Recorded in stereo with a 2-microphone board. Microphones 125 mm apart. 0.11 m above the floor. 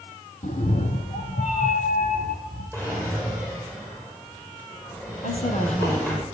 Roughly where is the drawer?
Centre.